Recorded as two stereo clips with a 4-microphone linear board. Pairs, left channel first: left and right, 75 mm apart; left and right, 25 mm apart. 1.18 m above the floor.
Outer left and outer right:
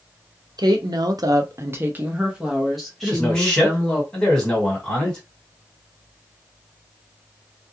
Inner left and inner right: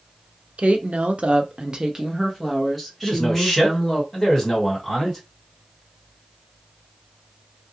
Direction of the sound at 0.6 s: 70° right (ahead or behind).